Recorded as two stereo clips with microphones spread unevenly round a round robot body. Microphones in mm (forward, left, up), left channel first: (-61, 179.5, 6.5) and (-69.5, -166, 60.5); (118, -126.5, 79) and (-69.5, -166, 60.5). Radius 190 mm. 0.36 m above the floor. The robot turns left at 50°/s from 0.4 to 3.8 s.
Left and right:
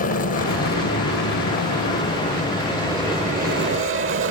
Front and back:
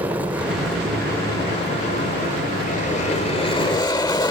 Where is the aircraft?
120° left; by 4.3 s 50° right.